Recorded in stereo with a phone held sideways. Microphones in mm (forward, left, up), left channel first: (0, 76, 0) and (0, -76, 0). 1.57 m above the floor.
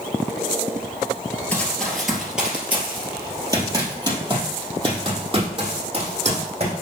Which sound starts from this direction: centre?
Running footsteps, at 1.5 s.